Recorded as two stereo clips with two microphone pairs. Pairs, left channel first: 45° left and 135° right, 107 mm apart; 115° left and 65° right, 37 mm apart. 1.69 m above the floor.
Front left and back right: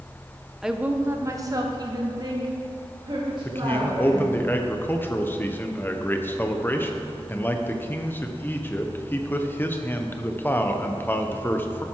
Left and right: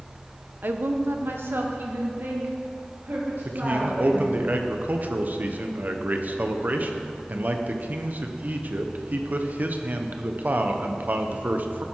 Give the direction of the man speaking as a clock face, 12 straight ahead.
1 o'clock.